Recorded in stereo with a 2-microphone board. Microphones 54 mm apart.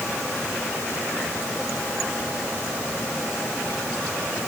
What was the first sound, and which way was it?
Only background noise.